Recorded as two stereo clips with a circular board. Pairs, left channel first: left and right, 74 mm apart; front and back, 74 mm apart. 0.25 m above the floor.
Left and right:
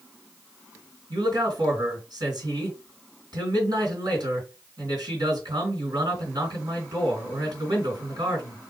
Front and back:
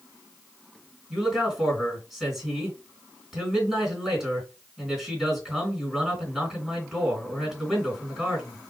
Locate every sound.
1.1 s a man speaking: 95° right, 3 m